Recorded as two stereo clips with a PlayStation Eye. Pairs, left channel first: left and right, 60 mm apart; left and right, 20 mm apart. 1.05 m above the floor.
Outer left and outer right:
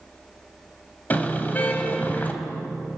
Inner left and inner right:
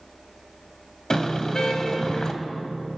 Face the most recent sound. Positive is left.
turn(degrees=30)  # may be behind; listen again after turning